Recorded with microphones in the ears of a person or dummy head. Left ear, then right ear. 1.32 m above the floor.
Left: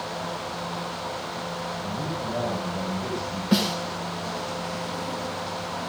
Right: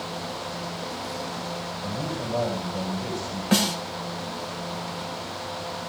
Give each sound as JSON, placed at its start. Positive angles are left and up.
{"t": 1.8, "sound": "a man speaking", "side_deg": -40, "distance_m": 8.0}
{"t": 3.5, "sound": "a snare drum", "side_deg": -30, "distance_m": 6.5}